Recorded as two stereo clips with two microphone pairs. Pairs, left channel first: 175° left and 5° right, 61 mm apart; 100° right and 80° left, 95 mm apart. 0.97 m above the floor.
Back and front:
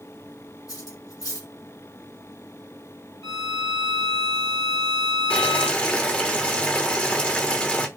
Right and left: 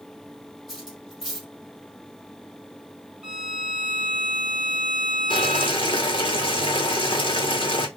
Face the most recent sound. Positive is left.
turn(degrees=-120)